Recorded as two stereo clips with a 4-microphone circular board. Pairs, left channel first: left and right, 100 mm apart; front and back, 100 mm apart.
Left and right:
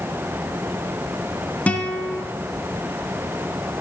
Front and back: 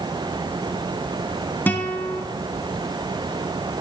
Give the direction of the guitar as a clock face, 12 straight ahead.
11 o'clock.